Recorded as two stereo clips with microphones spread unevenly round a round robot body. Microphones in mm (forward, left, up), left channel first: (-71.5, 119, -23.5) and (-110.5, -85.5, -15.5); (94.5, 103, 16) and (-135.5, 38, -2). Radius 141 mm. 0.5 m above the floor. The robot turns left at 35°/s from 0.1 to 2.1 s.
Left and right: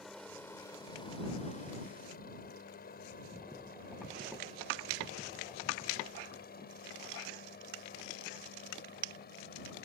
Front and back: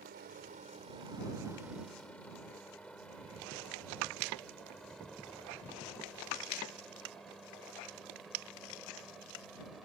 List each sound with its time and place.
0.0 s a helicopter: 170° left; by 9.9 s 105° left